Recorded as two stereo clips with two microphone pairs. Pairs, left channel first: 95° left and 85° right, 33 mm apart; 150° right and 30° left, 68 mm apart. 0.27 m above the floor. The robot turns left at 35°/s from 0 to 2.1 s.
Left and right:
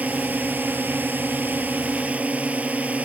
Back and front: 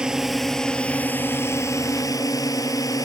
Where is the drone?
50° right; by 3.0 s 125° right.